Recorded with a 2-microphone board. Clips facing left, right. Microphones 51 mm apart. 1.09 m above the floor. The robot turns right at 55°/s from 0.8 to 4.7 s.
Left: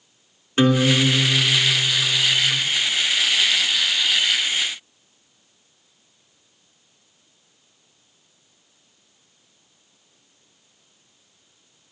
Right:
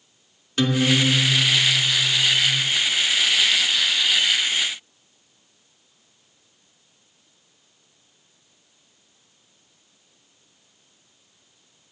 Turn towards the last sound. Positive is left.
turn(degrees=-120)